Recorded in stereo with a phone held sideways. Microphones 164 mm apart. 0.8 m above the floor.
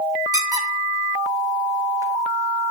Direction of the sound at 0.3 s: 20° right (ahead or behind).